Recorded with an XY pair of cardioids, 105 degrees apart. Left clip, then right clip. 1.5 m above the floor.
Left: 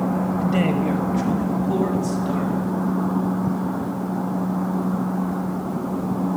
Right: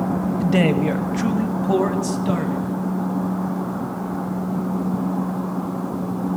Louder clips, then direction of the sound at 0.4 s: Right 5 dB; 40° right.